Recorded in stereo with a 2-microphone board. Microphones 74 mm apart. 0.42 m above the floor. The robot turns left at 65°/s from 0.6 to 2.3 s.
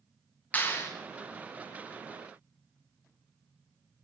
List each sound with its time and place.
0.5 s a clap: 20° left (ahead or behind), 3 m; by 0.9 s 40° left (ahead or behind), 3 m